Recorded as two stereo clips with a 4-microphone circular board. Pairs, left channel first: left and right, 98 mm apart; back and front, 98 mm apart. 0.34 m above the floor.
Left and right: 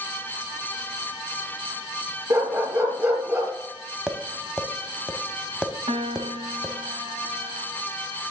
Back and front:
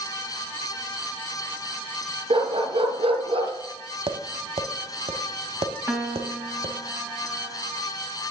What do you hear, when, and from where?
2.3 s a dog barking: 25° right, 2 m
4.1 s tapping: 5° right, 0.7 m
5.9 s a piano: 75° right, 0.8 m